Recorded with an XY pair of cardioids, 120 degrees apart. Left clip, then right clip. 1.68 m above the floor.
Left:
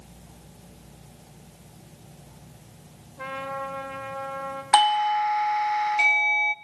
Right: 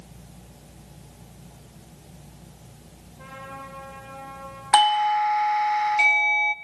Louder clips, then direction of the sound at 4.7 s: Right 1 dB; 5° right.